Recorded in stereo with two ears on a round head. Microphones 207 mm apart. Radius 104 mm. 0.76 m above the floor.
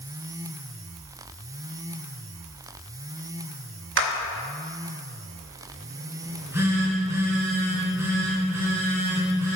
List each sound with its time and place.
4.0 s a clap: 50° right (ahead or behind), 0.8 m
6.2 s a phone buzzing: 10° right (ahead or behind), 2.5 m